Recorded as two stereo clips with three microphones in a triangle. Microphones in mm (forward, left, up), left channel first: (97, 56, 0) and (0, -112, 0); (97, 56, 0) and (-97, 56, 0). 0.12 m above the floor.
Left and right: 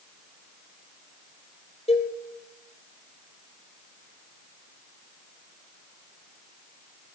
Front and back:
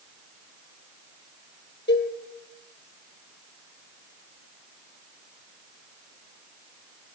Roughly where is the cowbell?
Ahead.